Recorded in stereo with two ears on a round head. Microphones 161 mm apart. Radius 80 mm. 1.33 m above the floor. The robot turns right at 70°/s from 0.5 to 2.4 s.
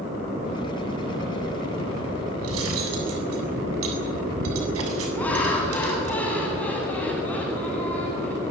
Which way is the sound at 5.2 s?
10° left (ahead or behind).